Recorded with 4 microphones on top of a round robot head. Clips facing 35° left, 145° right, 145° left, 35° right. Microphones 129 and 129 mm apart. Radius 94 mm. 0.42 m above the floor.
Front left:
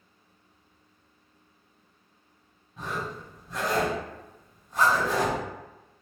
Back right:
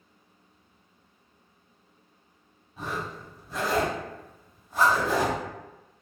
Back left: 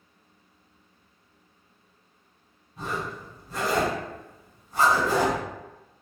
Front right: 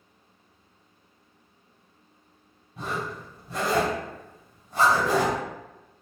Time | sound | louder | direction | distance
2.8 | a zipper | even, even | 60° right | 1.7 m